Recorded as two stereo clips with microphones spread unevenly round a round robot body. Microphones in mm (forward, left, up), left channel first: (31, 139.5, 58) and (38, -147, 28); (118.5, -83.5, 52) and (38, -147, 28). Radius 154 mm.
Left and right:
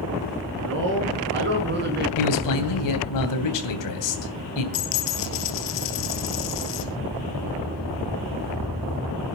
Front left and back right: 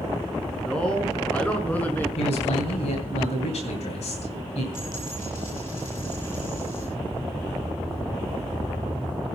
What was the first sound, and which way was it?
A man speaking, 45° right.